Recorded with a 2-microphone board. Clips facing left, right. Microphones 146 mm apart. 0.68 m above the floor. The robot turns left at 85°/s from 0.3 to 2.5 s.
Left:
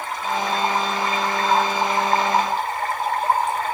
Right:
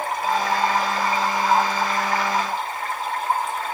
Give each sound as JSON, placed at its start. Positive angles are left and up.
{"t": 0.0, "sound": "running water", "azimuth_deg": -70, "distance_m": 2.0}